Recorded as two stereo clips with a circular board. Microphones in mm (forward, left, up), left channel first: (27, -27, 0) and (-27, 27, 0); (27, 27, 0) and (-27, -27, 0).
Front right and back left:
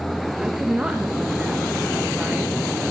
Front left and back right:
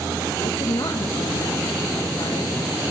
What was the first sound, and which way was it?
A woman speaking, 60° left.